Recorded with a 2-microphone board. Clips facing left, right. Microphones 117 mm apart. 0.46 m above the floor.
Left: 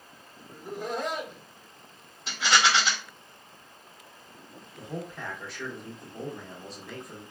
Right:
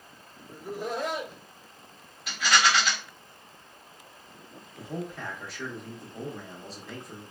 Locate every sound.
0.5 s laughter: 5° right (ahead or behind), 1.1 m
2.3 s a rattle: 30° left (ahead or behind), 1.3 m
4.8 s a man speaking: centre (ahead or behind), 0.7 m